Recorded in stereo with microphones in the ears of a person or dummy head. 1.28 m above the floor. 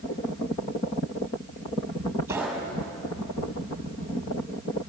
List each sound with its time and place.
2.3 s a gunshot: 10° right (ahead or behind), 5.5 m